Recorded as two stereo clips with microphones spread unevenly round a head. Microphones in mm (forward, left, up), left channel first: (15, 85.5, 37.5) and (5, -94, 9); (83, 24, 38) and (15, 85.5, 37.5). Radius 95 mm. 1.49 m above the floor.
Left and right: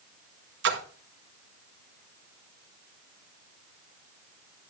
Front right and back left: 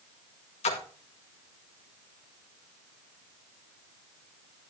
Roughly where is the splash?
Ahead right.